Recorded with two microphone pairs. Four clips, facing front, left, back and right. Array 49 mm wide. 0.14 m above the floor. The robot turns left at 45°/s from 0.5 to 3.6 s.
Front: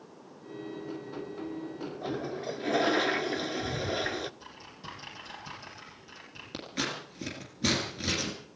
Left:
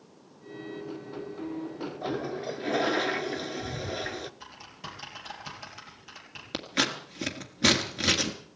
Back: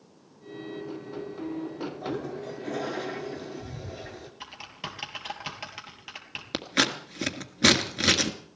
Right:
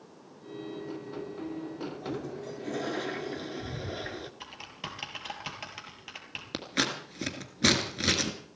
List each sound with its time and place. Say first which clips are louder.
2.0 s a toilet flushing: left 8 dB, front 1 dB; 85° left, 0.6 m; by 4.3 s 15° left, 0.6 m
4.4 s typing on a keyboard: right 2 dB, back 6 dB; 145° right, 3 m
6.5 s scissors: left 2 dB, back 8 dB; 170° left, 1.7 m